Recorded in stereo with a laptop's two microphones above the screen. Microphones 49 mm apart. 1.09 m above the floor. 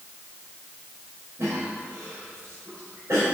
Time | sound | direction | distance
1.4 | a cough | 70° right (ahead or behind) | 4.5 m